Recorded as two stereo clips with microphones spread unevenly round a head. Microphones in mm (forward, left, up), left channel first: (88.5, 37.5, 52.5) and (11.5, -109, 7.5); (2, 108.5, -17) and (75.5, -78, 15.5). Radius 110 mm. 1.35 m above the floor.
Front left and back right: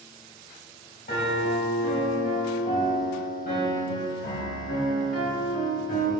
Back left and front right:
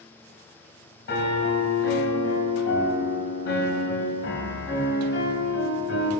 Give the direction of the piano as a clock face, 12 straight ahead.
9 o'clock.